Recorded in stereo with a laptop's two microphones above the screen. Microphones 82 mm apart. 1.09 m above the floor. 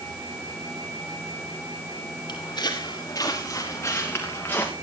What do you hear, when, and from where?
2.3 s footsteps: 55° left (ahead or behind), 4 m; by 4.7 s 20° left (ahead or behind), 4 m